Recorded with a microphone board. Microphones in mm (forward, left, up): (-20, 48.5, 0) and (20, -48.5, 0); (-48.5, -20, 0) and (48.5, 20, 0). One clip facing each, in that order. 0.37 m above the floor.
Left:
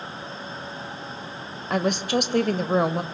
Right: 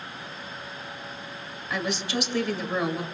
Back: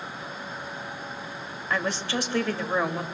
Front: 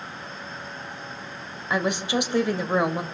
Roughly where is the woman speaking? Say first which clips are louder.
Left 6 dB, front 4 dB; left.